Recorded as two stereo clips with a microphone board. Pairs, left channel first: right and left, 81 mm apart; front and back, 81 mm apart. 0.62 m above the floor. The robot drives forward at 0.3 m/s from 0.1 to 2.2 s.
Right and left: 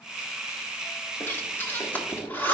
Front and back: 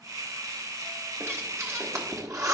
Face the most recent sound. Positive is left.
turn(degrees=-150)